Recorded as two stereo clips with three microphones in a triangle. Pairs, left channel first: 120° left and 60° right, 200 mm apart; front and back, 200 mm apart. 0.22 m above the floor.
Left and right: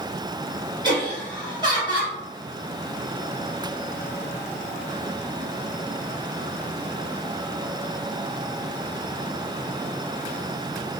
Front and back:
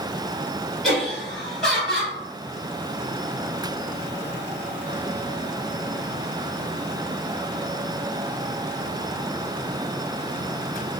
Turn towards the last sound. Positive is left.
turn(degrees=-85)